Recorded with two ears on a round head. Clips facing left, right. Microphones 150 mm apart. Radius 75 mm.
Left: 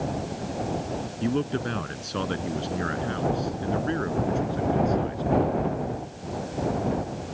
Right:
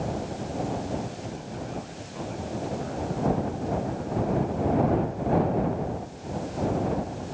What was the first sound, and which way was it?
A man speaking, 90° left.